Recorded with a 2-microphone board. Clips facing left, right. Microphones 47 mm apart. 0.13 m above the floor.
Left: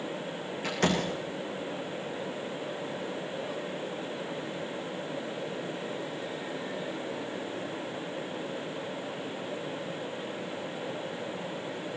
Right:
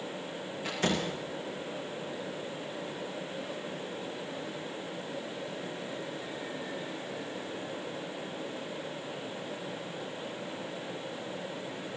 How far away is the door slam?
About 8 m.